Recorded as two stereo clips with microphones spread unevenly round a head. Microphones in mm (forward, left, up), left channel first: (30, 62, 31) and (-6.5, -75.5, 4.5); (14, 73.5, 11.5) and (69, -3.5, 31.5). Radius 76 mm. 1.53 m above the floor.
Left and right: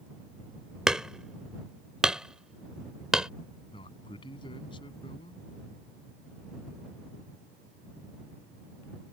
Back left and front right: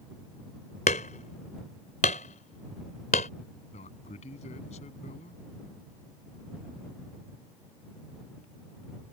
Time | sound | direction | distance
0.9 | hammering | 165° left | ?
3.7 | a man speaking | 135° left | ?